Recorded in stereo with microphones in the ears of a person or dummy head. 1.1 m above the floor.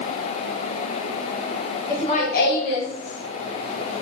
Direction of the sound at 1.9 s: 15° left (ahead or behind).